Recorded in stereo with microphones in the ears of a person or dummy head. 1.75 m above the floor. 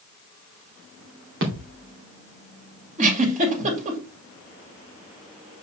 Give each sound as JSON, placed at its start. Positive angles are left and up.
{"t": 1.4, "sound": "a thud", "side_deg": -60, "distance_m": 2.5}
{"t": 3.0, "sound": "a giggle", "side_deg": -40, "distance_m": 2.5}